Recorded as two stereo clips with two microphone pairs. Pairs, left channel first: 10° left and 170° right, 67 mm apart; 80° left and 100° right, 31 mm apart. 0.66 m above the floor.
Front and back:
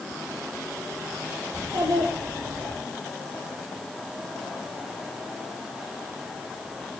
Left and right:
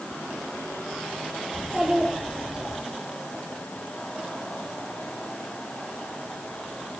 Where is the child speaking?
170° right, 9.5 m; by 2.8 s 165° right, 8.5 m.